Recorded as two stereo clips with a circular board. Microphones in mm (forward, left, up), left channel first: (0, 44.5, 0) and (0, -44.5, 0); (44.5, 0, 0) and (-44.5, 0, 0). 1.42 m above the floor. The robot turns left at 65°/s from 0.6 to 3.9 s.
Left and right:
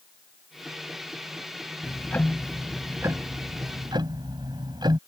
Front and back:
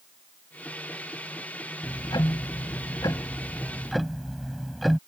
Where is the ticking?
45° left; by 5.0 s 90° right.